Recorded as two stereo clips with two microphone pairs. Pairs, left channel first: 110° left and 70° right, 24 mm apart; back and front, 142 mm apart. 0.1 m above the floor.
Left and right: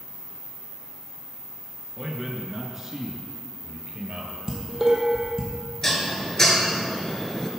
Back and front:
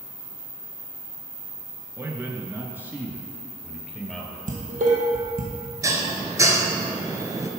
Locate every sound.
2.0 s a man speaking: 35° left, 1.2 m; by 4.4 s 85° right, 1.6 m
4.5 s dishes clattering: 5° right, 1.8 m
5.8 s dishes clattering: 50° left, 1.0 m